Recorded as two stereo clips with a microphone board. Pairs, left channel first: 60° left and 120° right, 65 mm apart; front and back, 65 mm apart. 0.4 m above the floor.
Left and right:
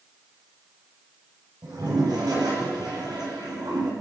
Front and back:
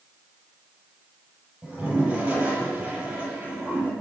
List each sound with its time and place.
1.6 s a toilet flushing: 105° right, 7 m